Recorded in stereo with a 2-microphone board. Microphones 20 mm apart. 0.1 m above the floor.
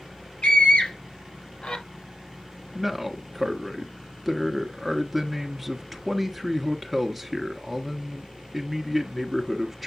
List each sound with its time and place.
0.4 s a scream: 50° left (ahead or behind), 2.5 m; by 1.8 s 55° left (ahead or behind), 2.5 m
2.8 s a man speaking: 5° right (ahead or behind), 1.4 m